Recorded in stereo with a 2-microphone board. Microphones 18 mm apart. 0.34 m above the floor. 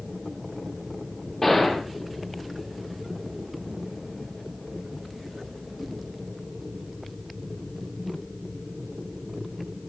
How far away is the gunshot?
About 9.5 m.